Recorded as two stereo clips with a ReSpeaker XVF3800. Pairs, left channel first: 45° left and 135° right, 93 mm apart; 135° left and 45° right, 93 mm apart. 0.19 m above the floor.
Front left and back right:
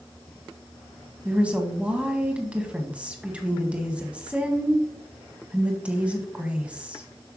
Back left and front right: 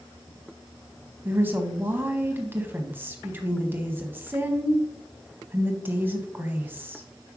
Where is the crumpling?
No crumpling in this recording.